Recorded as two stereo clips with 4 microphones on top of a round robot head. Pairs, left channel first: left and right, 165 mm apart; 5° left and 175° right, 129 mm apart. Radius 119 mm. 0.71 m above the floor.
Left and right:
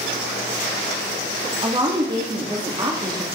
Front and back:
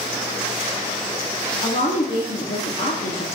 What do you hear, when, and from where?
1.6 s a woman speaking: 30° right, 1.9 m